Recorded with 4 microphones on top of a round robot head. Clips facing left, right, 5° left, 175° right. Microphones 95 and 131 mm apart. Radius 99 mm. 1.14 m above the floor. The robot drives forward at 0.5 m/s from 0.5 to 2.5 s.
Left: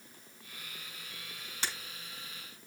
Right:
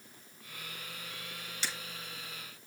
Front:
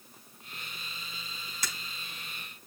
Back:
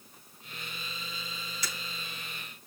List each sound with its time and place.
1.6 s breaking glass: 45° left, 5 m; by 1.7 s 50° left, 5 m